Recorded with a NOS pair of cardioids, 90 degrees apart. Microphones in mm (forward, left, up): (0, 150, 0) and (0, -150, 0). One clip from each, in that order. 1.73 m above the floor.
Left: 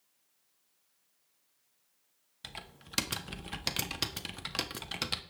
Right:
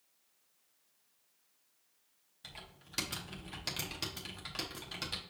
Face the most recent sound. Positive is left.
turn(degrees=35)